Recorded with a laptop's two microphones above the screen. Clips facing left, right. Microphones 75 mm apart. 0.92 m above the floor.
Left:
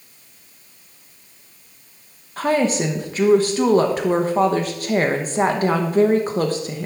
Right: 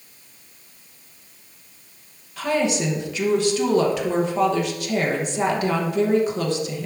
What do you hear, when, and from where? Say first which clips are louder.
2.4 s a woman speaking: left 3 dB; 40° left (ahead or behind), 0.9 m